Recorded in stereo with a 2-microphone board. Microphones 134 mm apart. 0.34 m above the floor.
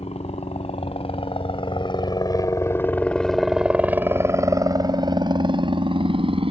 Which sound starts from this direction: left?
A helicopter, at 0.0 s.